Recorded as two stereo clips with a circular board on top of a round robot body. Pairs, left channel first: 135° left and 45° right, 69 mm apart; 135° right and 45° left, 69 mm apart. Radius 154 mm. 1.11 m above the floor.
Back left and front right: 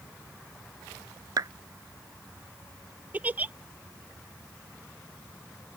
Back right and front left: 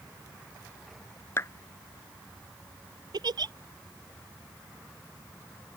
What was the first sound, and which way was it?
A clap, 80° right.